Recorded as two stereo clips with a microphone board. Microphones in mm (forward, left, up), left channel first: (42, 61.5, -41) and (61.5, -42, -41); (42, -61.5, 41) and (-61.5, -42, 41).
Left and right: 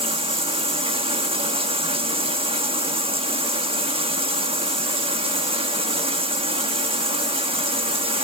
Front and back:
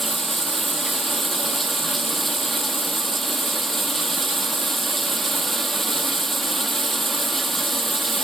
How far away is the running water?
About 0.9 m.